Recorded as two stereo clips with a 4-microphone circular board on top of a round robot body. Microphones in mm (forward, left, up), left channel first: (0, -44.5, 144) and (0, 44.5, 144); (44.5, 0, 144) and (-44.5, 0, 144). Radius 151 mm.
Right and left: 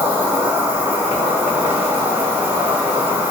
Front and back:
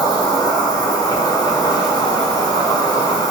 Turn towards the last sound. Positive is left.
turn(degrees=25)